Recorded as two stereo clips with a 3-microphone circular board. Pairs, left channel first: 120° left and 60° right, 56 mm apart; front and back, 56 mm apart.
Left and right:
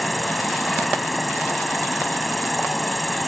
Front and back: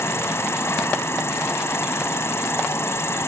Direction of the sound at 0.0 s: 30° left.